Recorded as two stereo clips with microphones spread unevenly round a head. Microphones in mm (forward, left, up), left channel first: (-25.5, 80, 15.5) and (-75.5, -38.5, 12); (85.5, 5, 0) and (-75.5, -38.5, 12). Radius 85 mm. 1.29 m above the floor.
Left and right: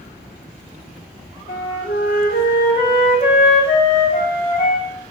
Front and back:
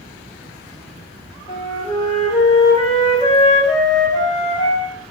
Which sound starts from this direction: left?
A flute, at 1.5 s.